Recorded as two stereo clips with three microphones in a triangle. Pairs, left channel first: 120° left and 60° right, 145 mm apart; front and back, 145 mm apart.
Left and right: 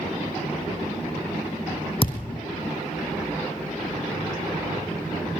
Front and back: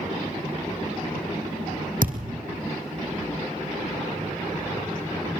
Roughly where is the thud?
Behind.